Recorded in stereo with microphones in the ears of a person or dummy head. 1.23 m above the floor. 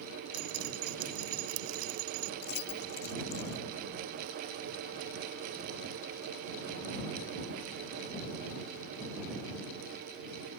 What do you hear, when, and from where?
0.3 s dripping: 85° right
2.4 s keys jangling: 55° left (ahead or behind)